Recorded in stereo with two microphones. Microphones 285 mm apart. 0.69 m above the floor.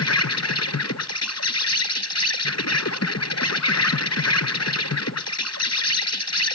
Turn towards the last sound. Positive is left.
turn(degrees=60)  # may be behind; listen again after turning